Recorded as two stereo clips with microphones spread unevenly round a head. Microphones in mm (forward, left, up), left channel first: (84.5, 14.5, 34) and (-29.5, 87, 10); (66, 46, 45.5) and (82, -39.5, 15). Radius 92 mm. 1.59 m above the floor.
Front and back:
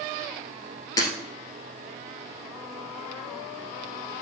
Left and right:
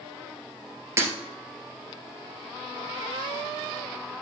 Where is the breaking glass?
10° right, 1.9 m.